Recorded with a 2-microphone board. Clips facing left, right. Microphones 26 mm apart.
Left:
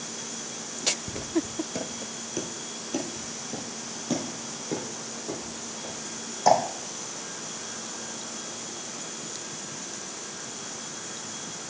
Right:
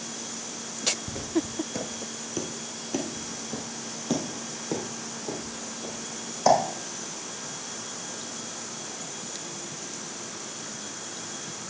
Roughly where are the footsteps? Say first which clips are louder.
Even; centre.